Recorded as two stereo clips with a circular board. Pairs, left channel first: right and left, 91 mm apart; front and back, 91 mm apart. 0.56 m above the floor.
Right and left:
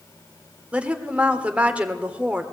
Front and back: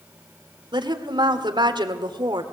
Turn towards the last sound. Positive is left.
turn(degrees=165)